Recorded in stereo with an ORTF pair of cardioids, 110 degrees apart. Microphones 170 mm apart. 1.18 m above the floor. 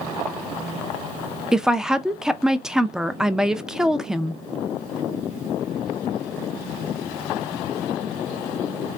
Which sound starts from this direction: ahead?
A woman speaking, at 1.5 s.